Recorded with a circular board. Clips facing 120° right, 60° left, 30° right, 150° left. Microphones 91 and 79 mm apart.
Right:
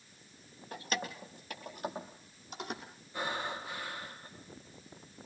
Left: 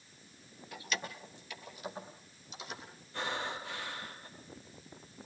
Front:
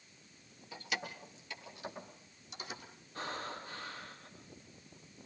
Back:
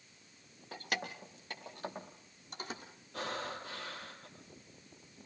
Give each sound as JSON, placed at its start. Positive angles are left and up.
{"t": 0.7, "sound": "keys jangling", "azimuth_deg": -170, "distance_m": 2.5}
{"t": 3.1, "sound": "breathing", "azimuth_deg": 160, "distance_m": 6.5}